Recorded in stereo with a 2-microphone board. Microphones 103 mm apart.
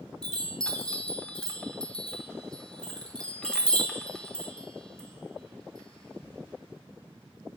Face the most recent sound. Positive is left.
turn(degrees=5)  # may be behind; listen again after turning